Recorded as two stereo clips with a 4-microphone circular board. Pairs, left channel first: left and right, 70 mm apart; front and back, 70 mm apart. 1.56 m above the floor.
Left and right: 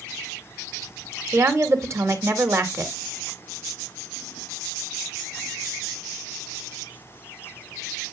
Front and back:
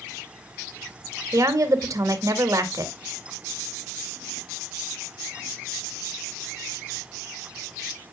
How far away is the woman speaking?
About 2.0 m.